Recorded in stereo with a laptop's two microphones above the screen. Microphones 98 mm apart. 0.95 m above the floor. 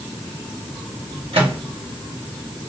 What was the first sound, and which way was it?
A microwave, 75° right (ahead or behind).